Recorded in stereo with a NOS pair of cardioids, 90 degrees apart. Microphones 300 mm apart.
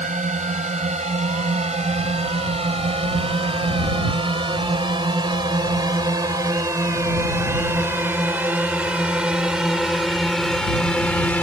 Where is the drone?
25° right; by 11.4 s 5° left.